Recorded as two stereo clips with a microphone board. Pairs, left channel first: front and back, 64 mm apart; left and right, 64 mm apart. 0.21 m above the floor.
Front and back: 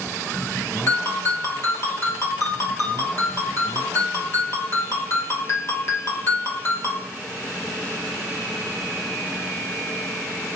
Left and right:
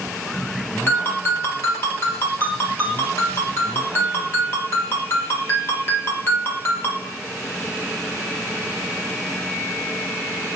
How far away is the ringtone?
About 2 m.